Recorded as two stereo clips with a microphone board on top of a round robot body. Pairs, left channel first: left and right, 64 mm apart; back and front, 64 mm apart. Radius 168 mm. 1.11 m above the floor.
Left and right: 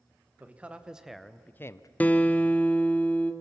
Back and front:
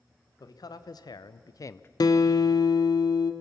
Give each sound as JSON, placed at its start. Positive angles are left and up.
{"t": 0.4, "sound": "a man speaking", "azimuth_deg": -155, "distance_m": 1.4}
{"t": 2.0, "sound": "a guitar", "azimuth_deg": 160, "distance_m": 1.0}